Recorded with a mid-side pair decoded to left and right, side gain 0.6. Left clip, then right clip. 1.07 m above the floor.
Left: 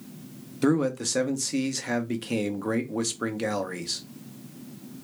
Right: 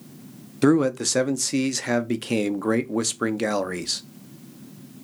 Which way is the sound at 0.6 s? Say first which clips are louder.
Right 5 dB; 30° right.